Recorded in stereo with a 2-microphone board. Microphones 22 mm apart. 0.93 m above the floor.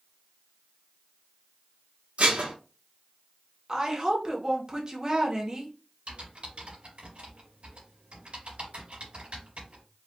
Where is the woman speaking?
30° right (ahead or behind), 1.1 m.